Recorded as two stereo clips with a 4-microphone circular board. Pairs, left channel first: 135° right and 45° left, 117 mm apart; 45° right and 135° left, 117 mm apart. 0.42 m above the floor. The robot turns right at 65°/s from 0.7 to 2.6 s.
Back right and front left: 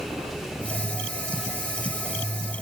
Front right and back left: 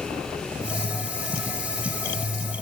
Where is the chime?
I don't hear a chime.